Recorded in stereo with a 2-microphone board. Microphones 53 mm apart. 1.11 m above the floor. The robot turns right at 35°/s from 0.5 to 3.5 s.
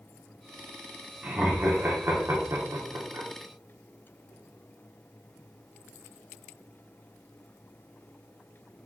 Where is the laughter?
20° right (ahead or behind), 0.9 m; by 3.3 s 60° right (ahead or behind), 0.9 m.